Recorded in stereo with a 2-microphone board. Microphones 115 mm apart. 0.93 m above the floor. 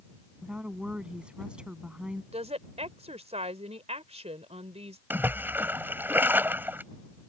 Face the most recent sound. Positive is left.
turn(degrees=-15)  # may be behind; listen again after turning